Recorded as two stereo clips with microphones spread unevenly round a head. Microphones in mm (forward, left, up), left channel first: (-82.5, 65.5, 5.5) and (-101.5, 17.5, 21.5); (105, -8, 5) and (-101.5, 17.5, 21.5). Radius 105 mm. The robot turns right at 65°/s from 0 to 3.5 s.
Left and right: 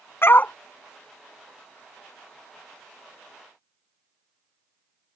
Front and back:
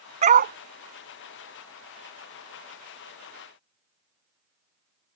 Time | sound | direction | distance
0.2 | a dog barking | 115° left | ?